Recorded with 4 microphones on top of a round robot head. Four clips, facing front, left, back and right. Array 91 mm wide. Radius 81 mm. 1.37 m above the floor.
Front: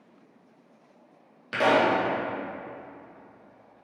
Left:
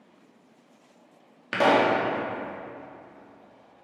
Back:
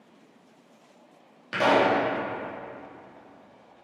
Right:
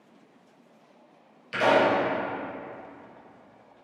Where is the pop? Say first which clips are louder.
Left 1 dB, even; 90° left, 2.5 m.